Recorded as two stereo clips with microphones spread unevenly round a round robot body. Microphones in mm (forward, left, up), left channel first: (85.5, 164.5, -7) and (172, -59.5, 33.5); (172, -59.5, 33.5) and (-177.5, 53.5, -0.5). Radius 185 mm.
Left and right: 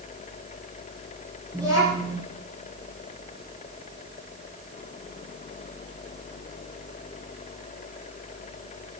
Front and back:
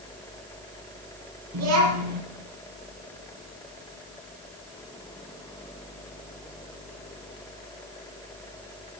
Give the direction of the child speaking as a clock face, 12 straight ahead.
5 o'clock.